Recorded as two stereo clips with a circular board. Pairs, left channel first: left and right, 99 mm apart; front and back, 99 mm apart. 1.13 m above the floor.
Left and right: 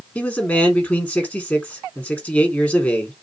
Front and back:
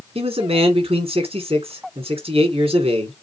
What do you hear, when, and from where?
0.1 s a man speaking: 165° left, 3 m